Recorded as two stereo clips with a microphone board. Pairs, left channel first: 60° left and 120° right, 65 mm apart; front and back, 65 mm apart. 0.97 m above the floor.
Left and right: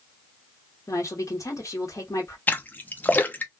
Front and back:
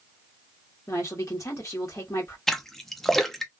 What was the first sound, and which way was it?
A woman speaking, 30° left.